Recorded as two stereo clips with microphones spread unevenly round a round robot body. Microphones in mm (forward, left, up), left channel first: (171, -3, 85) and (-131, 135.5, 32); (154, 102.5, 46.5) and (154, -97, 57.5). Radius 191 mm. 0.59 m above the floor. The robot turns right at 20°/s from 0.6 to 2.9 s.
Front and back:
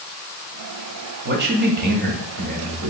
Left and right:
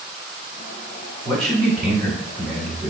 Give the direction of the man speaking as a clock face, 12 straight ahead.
6 o'clock.